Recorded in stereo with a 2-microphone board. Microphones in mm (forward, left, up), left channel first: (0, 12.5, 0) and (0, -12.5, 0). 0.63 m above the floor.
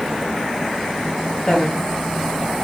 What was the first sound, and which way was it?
A woman speaking, 30° left (ahead or behind).